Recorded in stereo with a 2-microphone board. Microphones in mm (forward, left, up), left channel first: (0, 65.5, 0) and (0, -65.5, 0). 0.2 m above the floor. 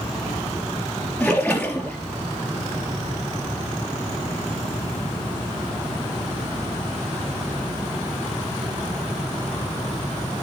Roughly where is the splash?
Centre.